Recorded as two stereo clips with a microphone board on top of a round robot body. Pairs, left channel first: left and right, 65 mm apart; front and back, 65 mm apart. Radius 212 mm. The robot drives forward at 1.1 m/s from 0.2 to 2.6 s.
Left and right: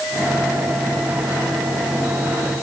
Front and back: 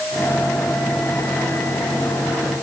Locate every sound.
Only background noise.